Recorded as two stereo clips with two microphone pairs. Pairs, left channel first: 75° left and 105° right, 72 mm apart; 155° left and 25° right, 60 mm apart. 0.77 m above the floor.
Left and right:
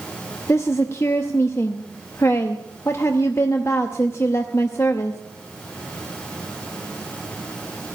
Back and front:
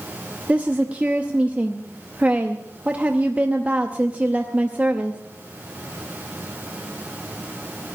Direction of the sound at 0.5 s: 35° left.